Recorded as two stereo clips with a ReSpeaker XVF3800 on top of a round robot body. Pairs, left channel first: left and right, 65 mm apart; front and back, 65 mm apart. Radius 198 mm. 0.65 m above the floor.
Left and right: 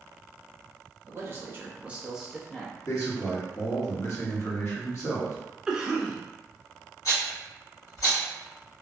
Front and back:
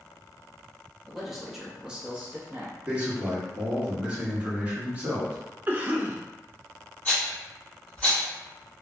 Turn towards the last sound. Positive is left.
turn(degrees=70)